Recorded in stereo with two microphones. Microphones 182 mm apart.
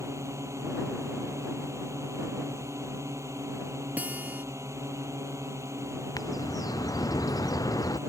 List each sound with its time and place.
0.0 s a drone: 15° right (ahead or behind)
4.0 s a guitar: 10° right (ahead or behind)
6.2 s a bird: 20° left (ahead or behind)